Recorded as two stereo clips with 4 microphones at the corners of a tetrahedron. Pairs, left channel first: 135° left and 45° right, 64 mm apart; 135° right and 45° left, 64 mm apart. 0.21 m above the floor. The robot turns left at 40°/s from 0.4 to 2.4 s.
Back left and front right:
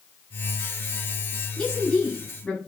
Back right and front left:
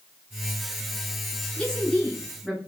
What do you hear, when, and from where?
1.6 s a woman speaking: 175° right, 1.0 m; by 2.6 s 150° left, 1.0 m